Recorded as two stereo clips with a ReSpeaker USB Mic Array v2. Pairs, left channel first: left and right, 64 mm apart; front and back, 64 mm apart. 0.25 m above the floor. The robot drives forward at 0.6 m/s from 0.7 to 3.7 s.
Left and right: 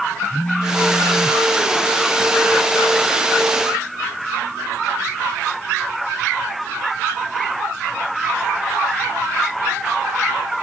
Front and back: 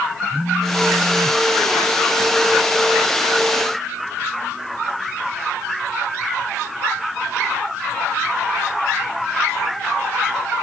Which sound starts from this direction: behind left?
A phone buzzing, at 0.3 s.